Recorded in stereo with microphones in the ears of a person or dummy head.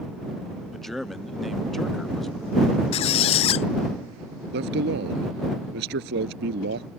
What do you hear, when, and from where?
0.7 s a man speaking: 5° left (ahead or behind)
2.9 s a squeak: 35° left (ahead or behind)
4.5 s a man speaking: 60° right (ahead or behind)